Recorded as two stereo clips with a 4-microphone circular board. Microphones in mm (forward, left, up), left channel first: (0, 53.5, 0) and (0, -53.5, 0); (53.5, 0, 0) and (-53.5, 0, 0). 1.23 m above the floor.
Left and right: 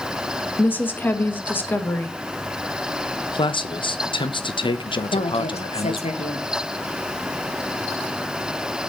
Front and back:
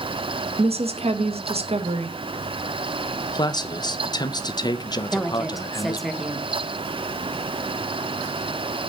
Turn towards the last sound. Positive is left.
turn(degrees=90)